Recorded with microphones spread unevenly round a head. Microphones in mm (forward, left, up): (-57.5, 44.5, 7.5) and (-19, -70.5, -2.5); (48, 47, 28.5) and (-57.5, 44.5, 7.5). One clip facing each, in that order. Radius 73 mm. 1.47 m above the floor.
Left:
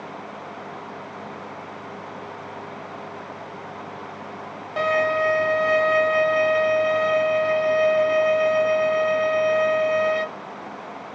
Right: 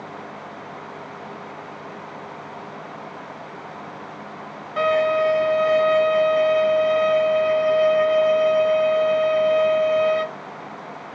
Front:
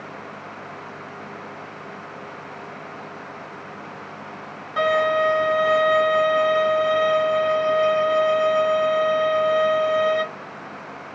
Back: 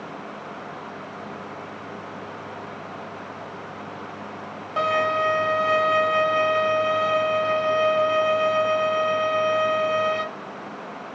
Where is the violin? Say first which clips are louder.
Right 3 dB, front 3 dB; 135° left, 1.7 m.